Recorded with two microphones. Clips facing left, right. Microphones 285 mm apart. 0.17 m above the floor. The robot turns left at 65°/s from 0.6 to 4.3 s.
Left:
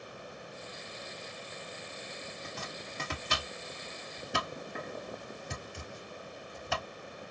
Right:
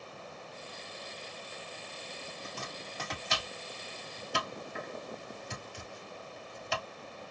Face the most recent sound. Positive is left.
turn(degrees=60)  # may be behind; listen again after turning